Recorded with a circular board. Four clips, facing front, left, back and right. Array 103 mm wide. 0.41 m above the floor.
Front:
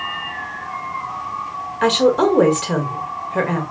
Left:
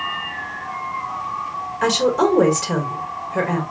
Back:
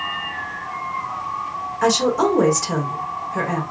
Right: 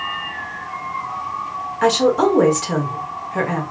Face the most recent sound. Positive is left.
turn(degrees=-10)